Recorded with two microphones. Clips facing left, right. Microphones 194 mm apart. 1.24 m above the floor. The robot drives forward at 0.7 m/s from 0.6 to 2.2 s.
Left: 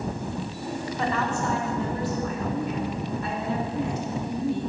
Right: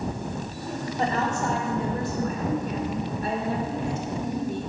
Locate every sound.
1.0 s a woman speaking: 40° right (ahead or behind), 4 m; by 4.7 s 50° right (ahead or behind), 3.5 m